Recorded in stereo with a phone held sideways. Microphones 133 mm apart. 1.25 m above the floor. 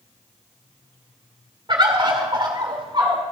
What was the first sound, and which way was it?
A bird, 35° right (ahead or behind).